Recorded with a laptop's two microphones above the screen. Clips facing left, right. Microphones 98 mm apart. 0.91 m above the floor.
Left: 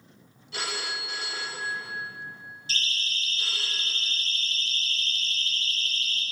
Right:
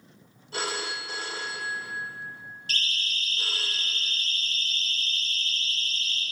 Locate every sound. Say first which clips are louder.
0.5 s a phone ringing: right 2 dB; 45° right (ahead or behind), 2.5 m
2.7 s a siren: even; 60° right (ahead or behind), 5 m; by 6.2 s 35° right (ahead or behind), 4.5 m